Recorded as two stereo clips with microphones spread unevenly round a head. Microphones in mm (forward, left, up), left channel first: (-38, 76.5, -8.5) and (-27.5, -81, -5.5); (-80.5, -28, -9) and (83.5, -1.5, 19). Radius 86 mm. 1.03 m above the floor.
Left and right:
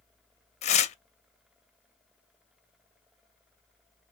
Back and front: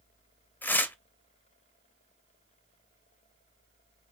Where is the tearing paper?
105° left, 0.6 m.